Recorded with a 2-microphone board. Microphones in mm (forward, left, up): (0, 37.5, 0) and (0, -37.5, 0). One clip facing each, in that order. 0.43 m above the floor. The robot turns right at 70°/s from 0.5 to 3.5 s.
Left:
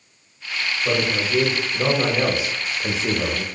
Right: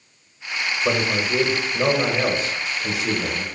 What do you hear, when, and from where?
0.8 s a man speaking: 85° right, 0.8 m; by 3.5 s 100° left, 0.8 m